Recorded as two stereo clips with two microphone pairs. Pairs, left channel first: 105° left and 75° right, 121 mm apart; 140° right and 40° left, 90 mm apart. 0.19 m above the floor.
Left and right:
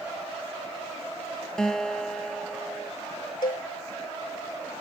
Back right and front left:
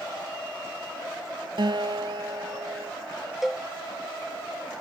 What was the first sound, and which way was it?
A guitar, 15° left.